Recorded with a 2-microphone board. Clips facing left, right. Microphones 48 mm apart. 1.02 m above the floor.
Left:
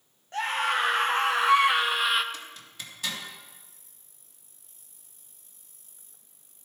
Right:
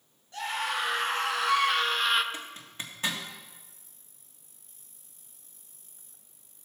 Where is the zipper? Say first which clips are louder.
Right 2 dB; 30° right (ahead or behind), 1.9 m.